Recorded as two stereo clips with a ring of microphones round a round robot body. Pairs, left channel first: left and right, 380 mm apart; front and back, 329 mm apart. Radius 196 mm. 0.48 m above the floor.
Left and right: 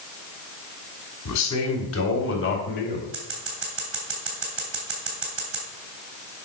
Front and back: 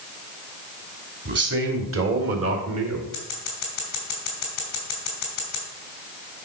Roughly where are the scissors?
Ahead right.